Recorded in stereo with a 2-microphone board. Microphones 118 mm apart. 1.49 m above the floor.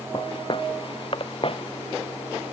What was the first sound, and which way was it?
Footsteps, 45° left (ahead or behind).